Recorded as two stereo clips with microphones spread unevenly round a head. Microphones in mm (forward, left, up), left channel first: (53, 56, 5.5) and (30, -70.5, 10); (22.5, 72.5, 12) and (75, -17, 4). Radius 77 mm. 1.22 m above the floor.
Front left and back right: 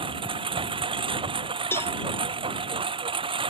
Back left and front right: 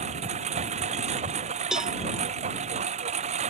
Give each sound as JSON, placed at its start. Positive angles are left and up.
{"t": 0.0, "sound": "a lawn mower", "azimuth_deg": -50}
{"t": 1.7, "sound": "a cowbell", "azimuth_deg": 25}